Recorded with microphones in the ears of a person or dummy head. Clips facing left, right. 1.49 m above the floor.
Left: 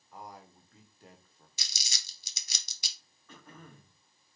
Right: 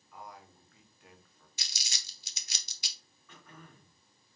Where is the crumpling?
70° left (ahead or behind), 0.8 m.